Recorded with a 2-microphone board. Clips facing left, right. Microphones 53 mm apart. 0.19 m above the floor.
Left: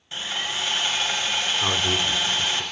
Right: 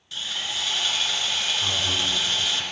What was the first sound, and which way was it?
Sawing, 30° left (ahead or behind).